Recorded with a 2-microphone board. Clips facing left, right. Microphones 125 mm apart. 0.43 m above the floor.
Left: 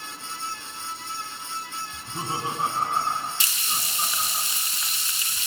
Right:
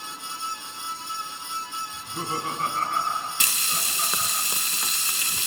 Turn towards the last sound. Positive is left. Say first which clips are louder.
# right 1 dB
turn(degrees=-70)  # may be behind; listen again after turning